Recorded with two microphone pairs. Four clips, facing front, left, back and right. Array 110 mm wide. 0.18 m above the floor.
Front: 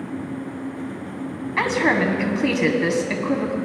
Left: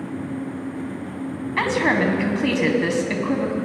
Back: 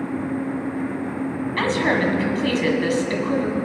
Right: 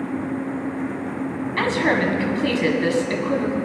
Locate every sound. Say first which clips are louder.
1.6 s a woman speaking: even, front 1 dB; 30° left, 1.6 m